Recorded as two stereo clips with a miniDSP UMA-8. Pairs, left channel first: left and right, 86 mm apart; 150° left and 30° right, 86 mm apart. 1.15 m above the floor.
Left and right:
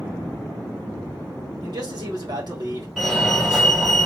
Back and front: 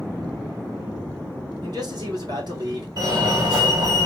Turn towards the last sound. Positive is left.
turn(degrees=-5)